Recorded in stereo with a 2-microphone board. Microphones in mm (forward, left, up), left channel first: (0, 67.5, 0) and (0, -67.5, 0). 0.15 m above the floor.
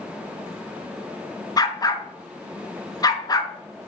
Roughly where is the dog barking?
Left.